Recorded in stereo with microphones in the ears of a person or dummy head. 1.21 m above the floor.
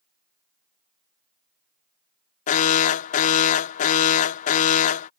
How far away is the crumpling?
I don't hear crumpling.